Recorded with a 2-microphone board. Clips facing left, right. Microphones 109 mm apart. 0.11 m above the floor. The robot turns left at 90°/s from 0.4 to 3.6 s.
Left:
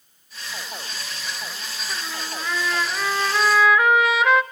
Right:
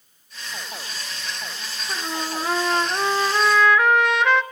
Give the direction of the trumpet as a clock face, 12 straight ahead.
1 o'clock.